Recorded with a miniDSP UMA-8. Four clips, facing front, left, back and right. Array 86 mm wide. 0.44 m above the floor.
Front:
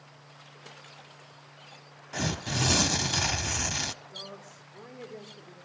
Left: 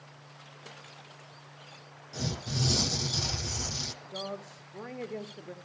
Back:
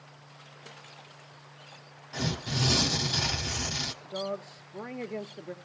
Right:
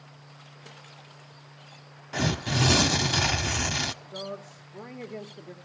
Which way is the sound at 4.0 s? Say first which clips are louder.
Right 1 dB, back 10 dB; 175° left.